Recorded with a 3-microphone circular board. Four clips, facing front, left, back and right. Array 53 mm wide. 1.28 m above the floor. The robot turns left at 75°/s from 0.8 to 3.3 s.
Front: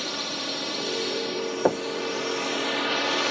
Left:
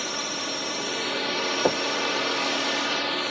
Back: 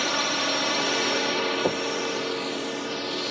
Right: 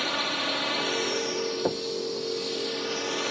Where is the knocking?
30° left; by 1.9 s 15° left.